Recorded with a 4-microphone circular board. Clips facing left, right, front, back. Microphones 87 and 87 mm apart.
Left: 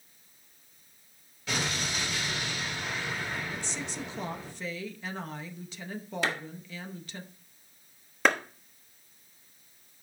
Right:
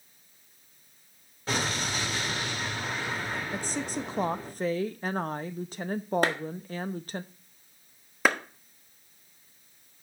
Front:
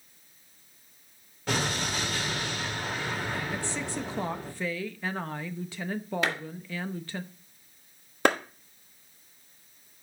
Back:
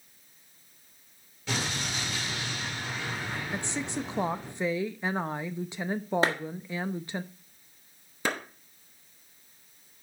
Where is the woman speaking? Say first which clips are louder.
Right 5 dB, even; 115° right, 0.6 m.